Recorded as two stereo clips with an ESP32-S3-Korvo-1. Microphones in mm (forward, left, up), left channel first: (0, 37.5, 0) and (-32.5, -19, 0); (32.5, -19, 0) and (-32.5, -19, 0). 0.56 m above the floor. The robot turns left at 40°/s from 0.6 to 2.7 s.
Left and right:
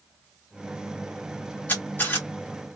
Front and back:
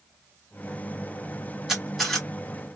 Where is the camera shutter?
105° left, 1.4 m; by 2.3 s 80° left, 1.4 m.